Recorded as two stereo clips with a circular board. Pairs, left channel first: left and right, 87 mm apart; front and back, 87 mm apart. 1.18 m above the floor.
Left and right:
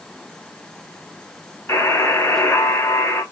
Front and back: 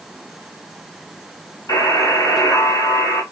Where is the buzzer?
40° left, 1.7 m.